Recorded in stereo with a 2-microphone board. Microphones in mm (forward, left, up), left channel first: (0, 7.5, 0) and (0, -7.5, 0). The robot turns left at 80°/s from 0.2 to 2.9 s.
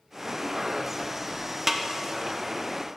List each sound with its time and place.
1.7 s a snare drum: 20° right (ahead or behind), 0.6 m; by 1.9 s 25° right (ahead or behind), 0.6 m